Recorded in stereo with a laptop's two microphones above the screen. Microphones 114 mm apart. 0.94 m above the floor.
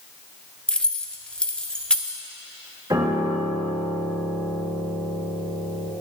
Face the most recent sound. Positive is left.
turn(degrees=-35)  # may be behind; listen again after turning